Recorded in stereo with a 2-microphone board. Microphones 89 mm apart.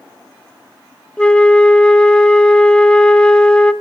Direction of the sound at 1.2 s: 10° left (ahead or behind).